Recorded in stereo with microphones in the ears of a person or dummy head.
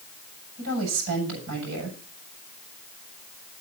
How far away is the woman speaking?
About 7.5 m.